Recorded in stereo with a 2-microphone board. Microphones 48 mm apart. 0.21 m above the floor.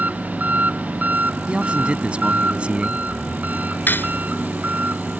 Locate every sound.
0.0 s an engine running: 35° right (ahead or behind)
1.5 s a man speaking: 25° right (ahead or behind)
3.9 s cutlery clinking: 45° left (ahead or behind)